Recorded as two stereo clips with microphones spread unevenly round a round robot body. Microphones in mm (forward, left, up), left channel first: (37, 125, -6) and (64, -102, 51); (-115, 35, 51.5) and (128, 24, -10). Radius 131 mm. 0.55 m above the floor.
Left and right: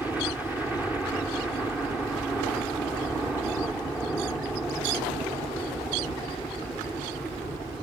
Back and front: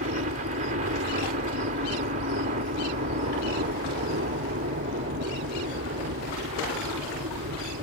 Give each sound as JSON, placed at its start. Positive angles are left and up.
{"t": 0.0, "sound": "a helicopter", "azimuth_deg": 15}